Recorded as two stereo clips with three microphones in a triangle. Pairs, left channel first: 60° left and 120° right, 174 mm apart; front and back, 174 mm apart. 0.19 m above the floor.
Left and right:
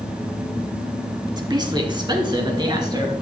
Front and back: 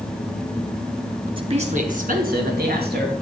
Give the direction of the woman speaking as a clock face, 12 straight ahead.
5 o'clock.